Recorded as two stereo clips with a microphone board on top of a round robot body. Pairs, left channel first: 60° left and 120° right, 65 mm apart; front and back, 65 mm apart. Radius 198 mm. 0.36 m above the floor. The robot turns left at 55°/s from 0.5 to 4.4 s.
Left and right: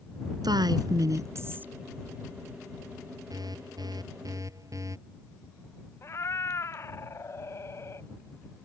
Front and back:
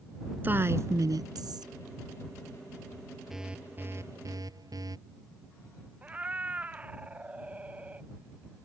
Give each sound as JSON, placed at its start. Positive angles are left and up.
{"t": 0.4, "sound": "a woman speaking", "azimuth_deg": -120}
{"t": 3.3, "sound": "an alarm", "azimuth_deg": -95}
{"t": 6.0, "sound": "a cat meowing", "azimuth_deg": 110}